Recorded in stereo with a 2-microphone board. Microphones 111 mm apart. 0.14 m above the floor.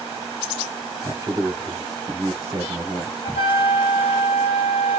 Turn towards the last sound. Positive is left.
turn(degrees=55)  # may be behind; listen again after turning